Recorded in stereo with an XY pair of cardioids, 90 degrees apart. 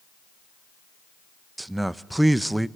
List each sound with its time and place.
1.6 s a man speaking: 15° right, 0.8 m